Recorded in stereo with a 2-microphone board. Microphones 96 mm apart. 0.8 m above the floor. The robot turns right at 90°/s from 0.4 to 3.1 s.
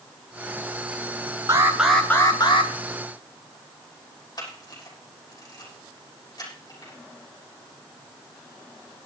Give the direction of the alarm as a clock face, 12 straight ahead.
1 o'clock.